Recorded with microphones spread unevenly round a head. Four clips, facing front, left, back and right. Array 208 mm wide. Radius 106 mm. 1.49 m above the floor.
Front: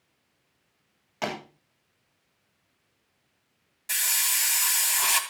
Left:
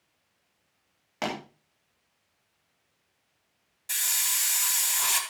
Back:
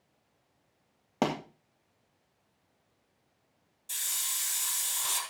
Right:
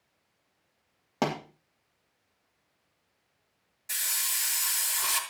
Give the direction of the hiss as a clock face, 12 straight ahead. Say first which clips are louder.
Left 2 dB, front 11 dB; 12 o'clock.